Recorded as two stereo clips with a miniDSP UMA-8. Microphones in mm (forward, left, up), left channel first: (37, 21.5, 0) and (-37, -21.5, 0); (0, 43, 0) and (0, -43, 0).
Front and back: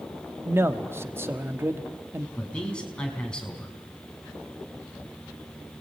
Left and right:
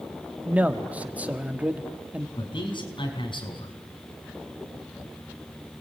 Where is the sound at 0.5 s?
145° right, 1.3 m.